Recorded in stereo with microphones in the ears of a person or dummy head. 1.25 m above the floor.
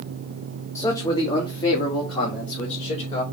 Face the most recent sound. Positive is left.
turn(degrees=20)  # may be behind; listen again after turning